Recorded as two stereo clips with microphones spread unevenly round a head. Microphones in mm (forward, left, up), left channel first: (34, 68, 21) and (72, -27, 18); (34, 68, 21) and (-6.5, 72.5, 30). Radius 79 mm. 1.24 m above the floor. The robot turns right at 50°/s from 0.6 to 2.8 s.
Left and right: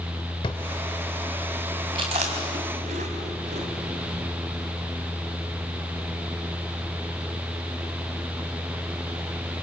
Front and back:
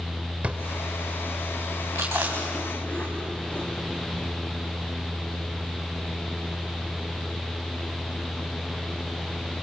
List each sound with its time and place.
0.4 s a drawer: 145° left, 1.3 m; by 0.6 s 150° left, 1.3 m
1.9 s chewing: 130° right, 2.5 m; by 3.7 s 90° right, 2.5 m